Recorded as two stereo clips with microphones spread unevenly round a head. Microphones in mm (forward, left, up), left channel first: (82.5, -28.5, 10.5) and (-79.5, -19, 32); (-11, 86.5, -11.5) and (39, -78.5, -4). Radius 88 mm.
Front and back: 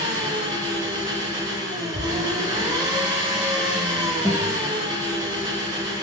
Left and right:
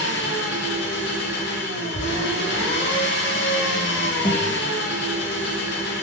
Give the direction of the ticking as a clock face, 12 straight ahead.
3 o'clock.